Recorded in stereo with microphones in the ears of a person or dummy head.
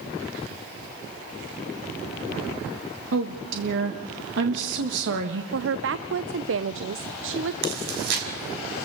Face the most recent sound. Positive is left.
turn(degrees=-60)  # may be behind; listen again after turning